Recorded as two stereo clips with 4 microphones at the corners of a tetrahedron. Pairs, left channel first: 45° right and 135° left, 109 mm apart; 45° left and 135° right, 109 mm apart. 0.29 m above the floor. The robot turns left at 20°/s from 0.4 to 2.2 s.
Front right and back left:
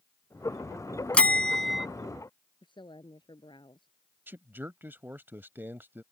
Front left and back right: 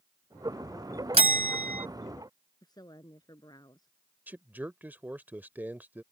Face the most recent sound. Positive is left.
turn(degrees=175)